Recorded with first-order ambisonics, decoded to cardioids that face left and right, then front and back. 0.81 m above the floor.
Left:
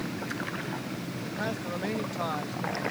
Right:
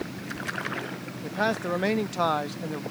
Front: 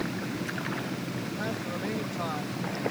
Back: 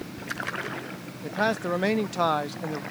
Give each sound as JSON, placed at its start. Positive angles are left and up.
{"t": 1.2, "sound": "a man speaking", "azimuth_deg": -140}